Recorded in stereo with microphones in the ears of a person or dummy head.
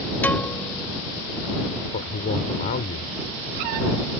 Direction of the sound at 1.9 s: 40° left (ahead or behind).